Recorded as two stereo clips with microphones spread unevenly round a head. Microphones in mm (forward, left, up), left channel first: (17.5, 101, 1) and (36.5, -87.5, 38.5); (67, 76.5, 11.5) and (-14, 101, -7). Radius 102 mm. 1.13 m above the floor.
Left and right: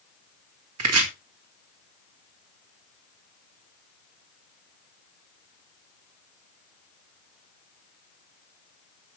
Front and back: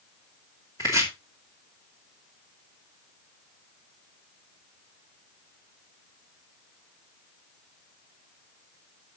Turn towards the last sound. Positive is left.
turn(degrees=-95)